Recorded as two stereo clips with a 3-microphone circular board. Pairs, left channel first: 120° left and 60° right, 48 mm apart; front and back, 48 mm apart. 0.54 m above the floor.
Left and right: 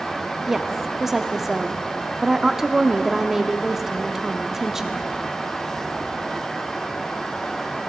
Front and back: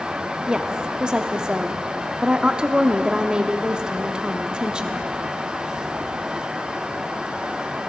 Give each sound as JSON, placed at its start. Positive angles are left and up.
{"t": 0.5, "sound": "a woman speaking", "azimuth_deg": -135, "distance_m": 0.6}